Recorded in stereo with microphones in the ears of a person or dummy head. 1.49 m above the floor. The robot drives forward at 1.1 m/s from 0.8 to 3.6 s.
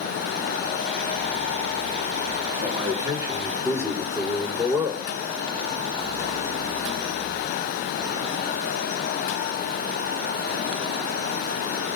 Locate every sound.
2.6 s a man speaking: 20° right (ahead or behind), 3 m; by 5.1 s 15° right (ahead or behind), 4 m